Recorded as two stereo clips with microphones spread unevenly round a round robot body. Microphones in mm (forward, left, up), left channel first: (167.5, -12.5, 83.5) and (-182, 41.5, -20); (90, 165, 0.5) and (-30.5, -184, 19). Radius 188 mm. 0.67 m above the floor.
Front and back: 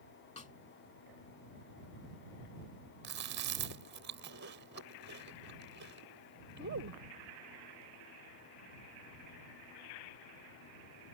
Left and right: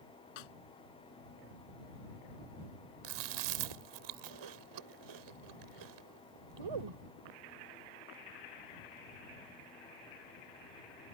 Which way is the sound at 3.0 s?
135° right.